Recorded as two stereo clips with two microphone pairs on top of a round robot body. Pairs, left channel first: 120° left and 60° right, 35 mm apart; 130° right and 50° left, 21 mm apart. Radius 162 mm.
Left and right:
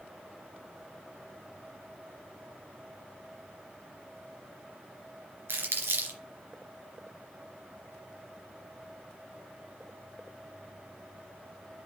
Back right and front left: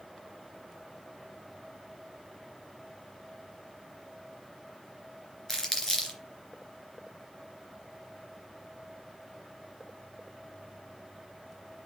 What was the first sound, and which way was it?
Crumpling, 60° right.